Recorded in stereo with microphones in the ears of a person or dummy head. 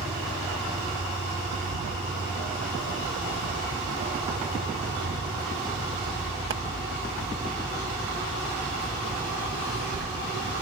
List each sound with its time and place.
0.0 s an insect: 15° right (ahead or behind)
1.5 s a bird: 50° right (ahead or behind)